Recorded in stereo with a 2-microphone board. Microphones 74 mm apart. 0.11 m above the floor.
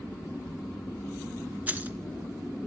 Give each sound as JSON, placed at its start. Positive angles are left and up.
{"t": 1.7, "sound": "keys jangling", "side_deg": -20, "distance_m": 0.8}